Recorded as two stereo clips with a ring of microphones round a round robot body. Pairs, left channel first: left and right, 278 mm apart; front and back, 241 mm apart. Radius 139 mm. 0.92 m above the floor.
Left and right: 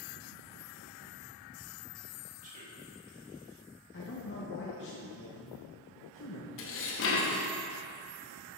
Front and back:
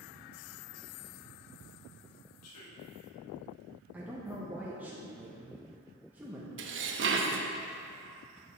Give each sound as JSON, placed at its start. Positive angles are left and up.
{"t": 2.4, "sound": "a man speaking", "azimuth_deg": -30, "distance_m": 1.5}
{"t": 3.9, "sound": "a man speaking", "azimuth_deg": 100, "distance_m": 0.8}
{"t": 6.6, "sound": "dishes clattering", "azimuth_deg": 140, "distance_m": 0.7}